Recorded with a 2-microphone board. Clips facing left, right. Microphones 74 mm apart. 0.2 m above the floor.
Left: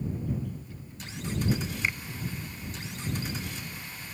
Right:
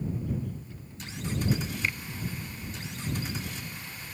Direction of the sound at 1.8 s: 20° left (ahead or behind).